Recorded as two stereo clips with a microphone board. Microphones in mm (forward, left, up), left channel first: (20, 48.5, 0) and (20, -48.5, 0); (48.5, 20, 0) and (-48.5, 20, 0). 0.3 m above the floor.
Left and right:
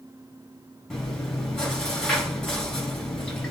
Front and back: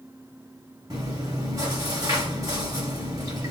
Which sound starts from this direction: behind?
Chewing, at 0.9 s.